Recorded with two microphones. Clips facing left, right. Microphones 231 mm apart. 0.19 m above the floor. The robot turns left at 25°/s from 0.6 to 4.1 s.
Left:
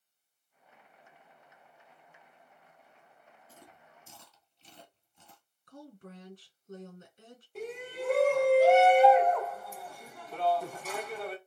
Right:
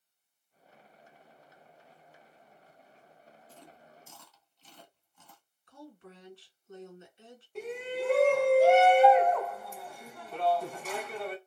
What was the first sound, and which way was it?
Chewing, 10° left (ahead or behind).